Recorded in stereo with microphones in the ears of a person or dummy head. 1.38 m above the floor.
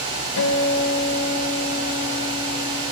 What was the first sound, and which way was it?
A guitar, 80° left.